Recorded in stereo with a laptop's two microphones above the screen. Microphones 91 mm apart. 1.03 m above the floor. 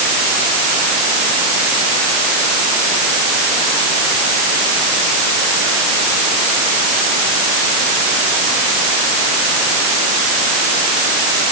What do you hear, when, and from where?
Only background noise.